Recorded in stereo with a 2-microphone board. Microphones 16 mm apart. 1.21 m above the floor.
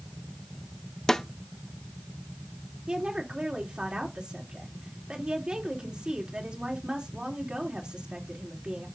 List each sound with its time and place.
1.1 s a snare drum: 30° left (ahead or behind), 0.9 m
2.9 s a woman speaking: 75° right (ahead or behind), 3 m